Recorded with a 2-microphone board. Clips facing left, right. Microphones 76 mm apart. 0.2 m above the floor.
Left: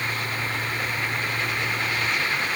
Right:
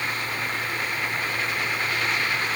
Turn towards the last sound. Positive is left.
No sound to turn to.